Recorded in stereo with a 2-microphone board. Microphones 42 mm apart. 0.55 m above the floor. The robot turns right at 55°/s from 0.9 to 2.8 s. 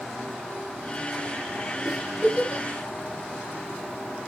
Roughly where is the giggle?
Centre.